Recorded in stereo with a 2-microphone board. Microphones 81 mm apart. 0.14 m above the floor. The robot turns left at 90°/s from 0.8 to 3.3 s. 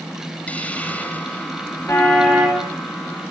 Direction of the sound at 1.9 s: 35° left.